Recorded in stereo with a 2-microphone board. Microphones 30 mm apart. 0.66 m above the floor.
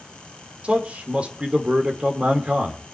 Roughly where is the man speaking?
Right.